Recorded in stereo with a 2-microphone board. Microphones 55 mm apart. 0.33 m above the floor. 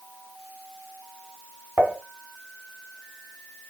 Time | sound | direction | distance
1.8 | dishes clattering | 30° right (ahead or behind) | 2.0 m